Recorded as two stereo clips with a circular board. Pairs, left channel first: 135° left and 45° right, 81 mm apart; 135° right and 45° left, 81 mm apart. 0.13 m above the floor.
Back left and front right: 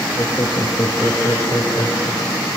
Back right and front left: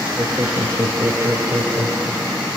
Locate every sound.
0.2 s laughter: 100° left, 1.5 m